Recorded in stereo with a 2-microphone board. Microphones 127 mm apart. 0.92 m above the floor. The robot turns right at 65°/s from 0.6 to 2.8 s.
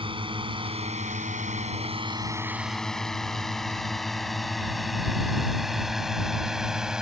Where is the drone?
45° right (ahead or behind); by 7.0 s 5° right (ahead or behind).